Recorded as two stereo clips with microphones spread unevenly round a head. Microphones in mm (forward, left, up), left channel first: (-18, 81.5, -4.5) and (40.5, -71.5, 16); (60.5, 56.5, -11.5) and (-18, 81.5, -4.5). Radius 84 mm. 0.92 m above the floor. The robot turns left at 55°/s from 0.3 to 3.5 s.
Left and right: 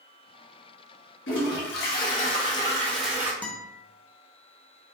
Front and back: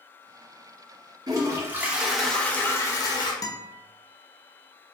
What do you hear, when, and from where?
1.3 s a toilet flushing: 120° left, 0.8 m; by 3.3 s 5° left, 0.8 m
3.4 s a guitar: 30° left, 0.5 m; by 3.8 s 25° left, 0.5 m